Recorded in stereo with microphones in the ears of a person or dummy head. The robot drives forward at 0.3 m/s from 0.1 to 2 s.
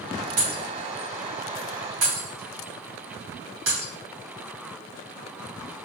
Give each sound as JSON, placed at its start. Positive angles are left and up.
{"t": 0.4, "sound": "breaking glass", "side_deg": -65, "distance_m": 1.9}